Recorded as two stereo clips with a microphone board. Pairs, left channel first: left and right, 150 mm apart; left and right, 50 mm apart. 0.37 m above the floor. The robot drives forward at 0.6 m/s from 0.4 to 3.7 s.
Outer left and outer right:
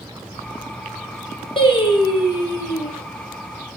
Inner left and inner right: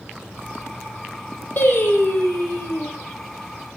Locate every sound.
1.6 s singing: 35° left (ahead or behind), 7 m; by 2.9 s 30° left (ahead or behind), 8 m